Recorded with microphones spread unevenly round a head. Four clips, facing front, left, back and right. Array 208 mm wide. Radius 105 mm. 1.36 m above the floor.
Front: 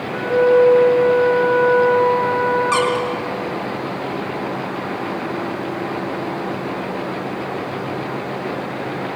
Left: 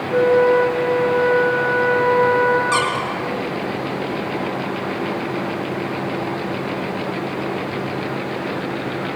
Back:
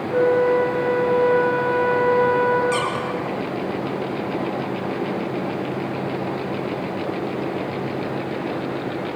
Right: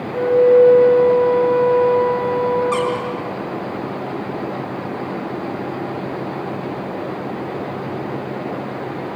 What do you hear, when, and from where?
0.1 s a flute: 140° left, 4.5 m
2.7 s a squeak: 20° left, 5 m